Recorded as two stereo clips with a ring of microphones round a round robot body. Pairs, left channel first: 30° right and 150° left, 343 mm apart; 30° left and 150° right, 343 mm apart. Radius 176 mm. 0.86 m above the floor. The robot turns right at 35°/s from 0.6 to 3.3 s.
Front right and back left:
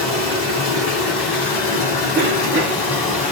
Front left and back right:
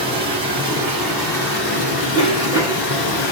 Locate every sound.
0.0 s running water: 75° right, 1.5 m; by 3.3 s 20° left, 1.5 m
2.1 s a cough: 95° left, 1.4 m; by 2.9 s 120° left, 1.4 m